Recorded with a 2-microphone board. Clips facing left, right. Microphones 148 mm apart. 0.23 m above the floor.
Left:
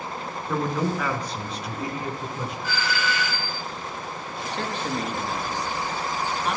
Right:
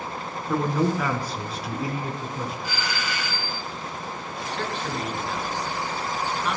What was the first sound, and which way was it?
A man speaking, 5° right (ahead or behind).